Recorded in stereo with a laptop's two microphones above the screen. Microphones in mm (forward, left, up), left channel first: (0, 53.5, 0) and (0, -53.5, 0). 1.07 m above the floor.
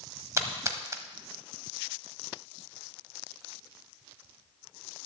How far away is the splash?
About 1.0 m.